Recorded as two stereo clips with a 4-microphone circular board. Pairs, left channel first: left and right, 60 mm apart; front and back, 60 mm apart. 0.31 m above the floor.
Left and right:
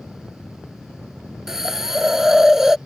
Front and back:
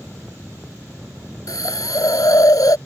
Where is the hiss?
10° right.